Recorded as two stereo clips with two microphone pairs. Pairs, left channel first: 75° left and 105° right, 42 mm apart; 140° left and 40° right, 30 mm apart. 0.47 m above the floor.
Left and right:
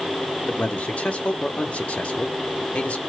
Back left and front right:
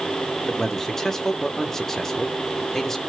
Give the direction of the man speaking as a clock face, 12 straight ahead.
9 o'clock.